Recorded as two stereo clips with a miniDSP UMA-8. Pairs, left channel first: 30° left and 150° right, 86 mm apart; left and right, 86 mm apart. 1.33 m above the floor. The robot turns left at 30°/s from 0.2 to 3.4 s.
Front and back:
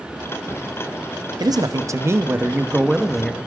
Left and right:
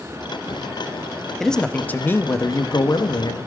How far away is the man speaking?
About 0.7 m.